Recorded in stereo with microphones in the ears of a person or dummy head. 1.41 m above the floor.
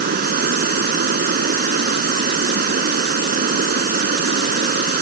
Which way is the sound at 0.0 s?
45° right (ahead or behind).